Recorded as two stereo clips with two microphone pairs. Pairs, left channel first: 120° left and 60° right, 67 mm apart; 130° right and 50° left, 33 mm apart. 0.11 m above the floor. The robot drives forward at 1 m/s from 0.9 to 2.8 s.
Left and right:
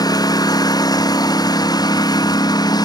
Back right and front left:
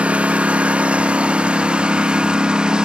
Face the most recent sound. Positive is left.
turn(degrees=120)